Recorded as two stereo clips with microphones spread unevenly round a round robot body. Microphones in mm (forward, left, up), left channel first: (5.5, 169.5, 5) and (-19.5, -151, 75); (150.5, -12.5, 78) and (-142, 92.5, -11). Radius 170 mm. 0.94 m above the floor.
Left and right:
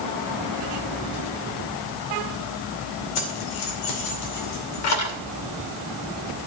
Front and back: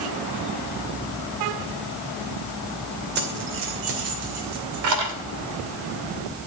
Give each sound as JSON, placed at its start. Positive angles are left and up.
{"t": 3.1, "sound": "keys jangling", "azimuth_deg": 100, "distance_m": 2.5}